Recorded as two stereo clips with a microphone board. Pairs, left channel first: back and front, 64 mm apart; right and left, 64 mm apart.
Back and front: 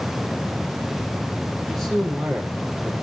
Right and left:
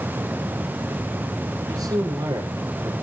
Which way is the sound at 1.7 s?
100° left.